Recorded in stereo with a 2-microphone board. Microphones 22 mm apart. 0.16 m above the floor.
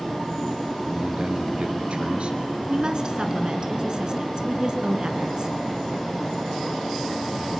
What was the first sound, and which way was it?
A man speaking, 60° right (ahead or behind).